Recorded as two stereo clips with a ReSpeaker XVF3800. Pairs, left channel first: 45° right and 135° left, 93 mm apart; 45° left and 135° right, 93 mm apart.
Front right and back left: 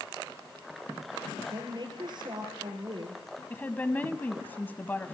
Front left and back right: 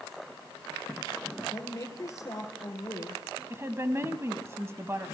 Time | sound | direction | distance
1.5 | a woman speaking | 100° left | 3.5 m
3.5 | a woman speaking | 100° right | 1.1 m